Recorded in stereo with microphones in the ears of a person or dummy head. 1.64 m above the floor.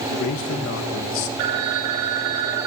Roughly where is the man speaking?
Left.